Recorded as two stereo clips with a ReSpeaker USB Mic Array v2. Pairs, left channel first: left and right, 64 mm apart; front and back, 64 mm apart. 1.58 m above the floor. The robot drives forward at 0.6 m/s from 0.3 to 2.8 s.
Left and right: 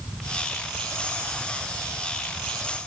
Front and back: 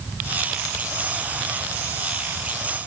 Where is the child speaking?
I don't hear a child speaking.